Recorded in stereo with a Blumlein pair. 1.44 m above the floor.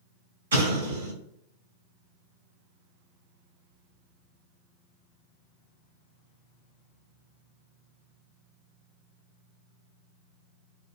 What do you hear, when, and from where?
0.5 s an explosion: 65° right, 1.6 m